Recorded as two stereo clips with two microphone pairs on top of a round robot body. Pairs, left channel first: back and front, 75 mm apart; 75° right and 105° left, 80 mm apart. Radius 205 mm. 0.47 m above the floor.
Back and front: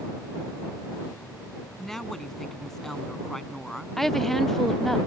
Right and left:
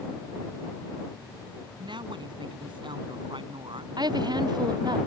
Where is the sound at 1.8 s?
95° left.